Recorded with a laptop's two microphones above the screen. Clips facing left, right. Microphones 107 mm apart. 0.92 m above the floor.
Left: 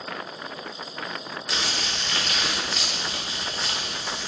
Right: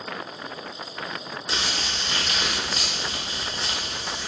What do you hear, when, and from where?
1.5 s crumpling: 25° right (ahead or behind), 0.6 m